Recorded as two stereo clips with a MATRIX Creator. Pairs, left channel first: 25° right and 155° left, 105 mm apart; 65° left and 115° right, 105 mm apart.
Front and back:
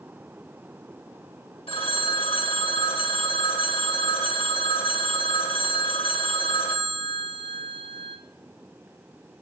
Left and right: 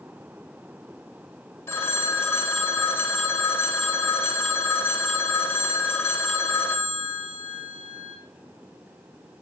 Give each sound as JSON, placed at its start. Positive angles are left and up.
{"t": 1.7, "sound": "a phone ringing", "azimuth_deg": 0, "distance_m": 1.6}